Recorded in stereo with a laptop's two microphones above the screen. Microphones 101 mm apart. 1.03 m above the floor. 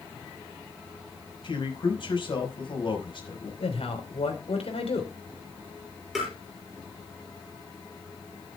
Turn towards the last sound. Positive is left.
turn(degrees=-5)  # may be behind; listen again after turning